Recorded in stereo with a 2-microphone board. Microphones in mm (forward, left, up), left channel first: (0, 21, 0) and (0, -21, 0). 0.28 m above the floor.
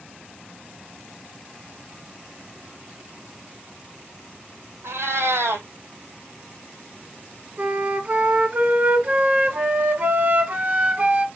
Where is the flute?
35° right (ahead or behind), 1.0 m.